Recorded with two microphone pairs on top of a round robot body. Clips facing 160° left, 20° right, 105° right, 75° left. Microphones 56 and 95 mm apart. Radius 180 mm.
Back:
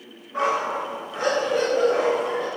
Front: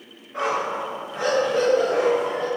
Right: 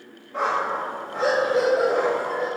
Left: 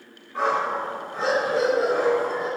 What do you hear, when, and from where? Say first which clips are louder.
0.3 s a dog barking: back 1 dB, even; 115° right, 1.6 m